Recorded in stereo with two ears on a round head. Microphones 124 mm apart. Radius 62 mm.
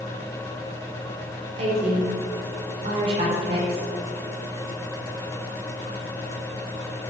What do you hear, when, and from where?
1.6 s a woman speaking: 40° right (ahead or behind), 5 m